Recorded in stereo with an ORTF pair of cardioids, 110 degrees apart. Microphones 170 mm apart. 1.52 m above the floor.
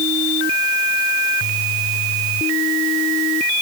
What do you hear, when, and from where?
Only background noise.